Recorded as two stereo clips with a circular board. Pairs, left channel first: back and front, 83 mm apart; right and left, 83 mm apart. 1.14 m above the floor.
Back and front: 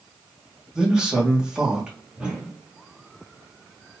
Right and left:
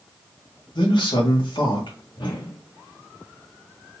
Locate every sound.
0.8 s a man speaking: 80° right, 1.4 m
2.2 s a whoosh: 80° right, 1.3 m